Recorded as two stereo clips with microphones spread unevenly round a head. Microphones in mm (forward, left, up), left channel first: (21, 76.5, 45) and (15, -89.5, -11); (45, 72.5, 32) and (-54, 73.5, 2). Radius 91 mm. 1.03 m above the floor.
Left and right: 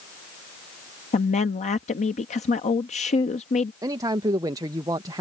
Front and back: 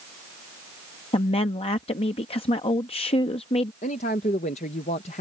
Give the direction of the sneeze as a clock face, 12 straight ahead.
No sneeze in this recording.